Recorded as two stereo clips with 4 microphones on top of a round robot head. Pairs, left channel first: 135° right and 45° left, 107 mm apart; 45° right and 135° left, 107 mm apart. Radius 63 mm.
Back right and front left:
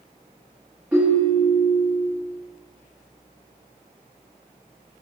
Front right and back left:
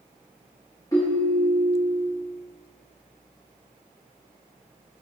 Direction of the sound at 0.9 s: 25° right.